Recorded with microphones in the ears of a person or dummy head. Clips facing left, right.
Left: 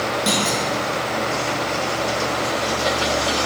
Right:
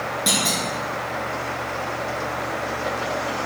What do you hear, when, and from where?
0.3 s a clunk: 5° right (ahead or behind), 0.8 m